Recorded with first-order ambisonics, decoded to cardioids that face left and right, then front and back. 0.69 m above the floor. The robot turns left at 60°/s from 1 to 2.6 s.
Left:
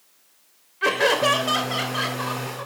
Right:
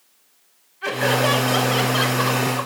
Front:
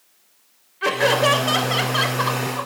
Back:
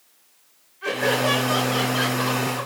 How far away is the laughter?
About 3 m.